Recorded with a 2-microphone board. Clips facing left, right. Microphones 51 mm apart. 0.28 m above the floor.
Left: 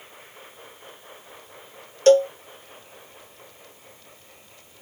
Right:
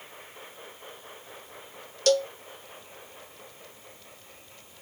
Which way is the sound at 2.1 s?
30° left (ahead or behind).